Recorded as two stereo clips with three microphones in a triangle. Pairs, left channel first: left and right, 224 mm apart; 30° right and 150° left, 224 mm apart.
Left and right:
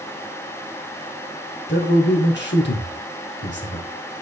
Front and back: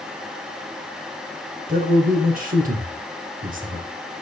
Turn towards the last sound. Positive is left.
turn(degrees=110)